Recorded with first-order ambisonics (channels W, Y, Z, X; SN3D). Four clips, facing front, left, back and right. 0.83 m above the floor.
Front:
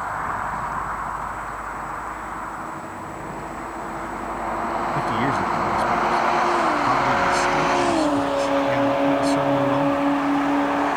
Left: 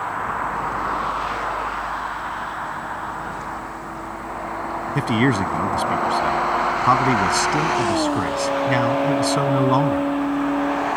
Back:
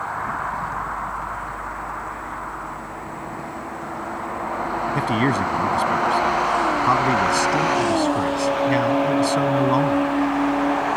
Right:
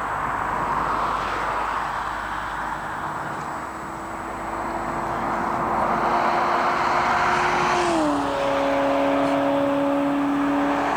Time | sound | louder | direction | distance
5.0 | a man speaking | left 8 dB, back 3 dB | 110° left | ?